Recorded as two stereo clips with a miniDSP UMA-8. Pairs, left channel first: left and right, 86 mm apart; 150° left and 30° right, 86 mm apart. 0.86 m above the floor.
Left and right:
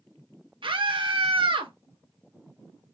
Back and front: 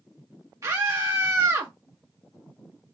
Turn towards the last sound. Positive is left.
turn(degrees=-80)